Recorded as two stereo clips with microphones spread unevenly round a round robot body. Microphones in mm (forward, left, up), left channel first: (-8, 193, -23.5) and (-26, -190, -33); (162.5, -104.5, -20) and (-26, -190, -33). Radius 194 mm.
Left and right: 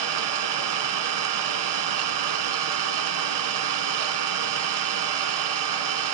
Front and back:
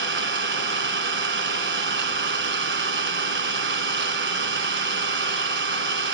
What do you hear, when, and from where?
0.0 s an engine running: 125° right, 1.1 m